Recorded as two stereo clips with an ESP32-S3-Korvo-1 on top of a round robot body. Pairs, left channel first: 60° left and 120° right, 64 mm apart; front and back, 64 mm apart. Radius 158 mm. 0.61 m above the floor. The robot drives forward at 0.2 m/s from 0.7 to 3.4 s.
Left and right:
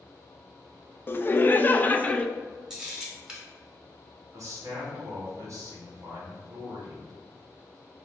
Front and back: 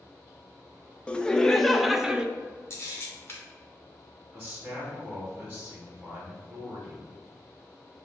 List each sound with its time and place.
1.1 s laughter: 60° left, 0.6 m; by 2.3 s 115° left, 0.6 m
2.7 s a camera shutter: 40° right, 1.3 m; by 3.4 s 45° right, 1.2 m
4.3 s a man speaking: 110° right, 1.5 m